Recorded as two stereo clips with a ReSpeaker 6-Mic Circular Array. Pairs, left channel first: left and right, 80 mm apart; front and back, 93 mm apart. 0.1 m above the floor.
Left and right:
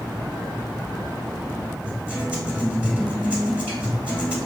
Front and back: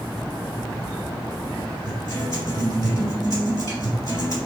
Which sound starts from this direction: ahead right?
A guitar, at 1.9 s.